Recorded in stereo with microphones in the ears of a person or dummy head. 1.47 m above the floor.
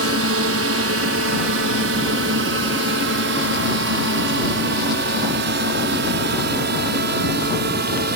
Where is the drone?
70° right (ahead or behind); by 8.2 s 60° right (ahead or behind).